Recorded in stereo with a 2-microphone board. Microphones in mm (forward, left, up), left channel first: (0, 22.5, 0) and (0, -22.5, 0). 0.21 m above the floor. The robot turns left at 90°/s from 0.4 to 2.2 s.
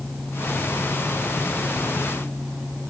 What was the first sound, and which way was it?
Only background noise.